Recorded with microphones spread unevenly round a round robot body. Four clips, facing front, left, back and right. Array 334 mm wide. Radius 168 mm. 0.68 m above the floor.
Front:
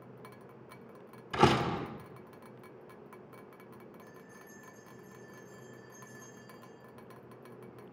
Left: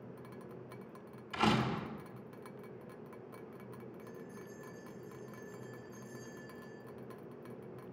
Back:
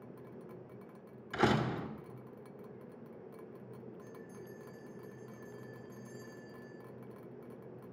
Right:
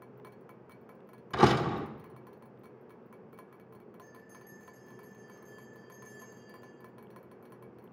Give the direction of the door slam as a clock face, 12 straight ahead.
2 o'clock.